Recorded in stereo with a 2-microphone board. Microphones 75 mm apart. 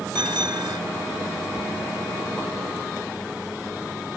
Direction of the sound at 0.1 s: 75° right (ahead or behind).